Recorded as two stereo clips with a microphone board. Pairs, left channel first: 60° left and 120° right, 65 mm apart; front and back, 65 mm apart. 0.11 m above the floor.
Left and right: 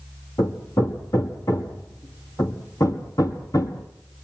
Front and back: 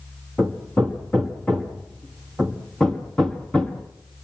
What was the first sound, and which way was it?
Hammering, 70° left.